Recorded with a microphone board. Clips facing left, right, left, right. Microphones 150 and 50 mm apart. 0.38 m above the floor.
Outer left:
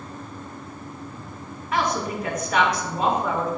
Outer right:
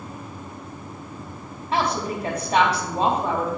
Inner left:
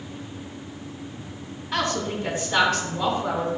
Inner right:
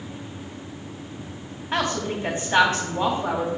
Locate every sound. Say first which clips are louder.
1.7 s a woman speaking: outer right 1 dB, inner right 1 dB; 30° right (ahead or behind), 3 m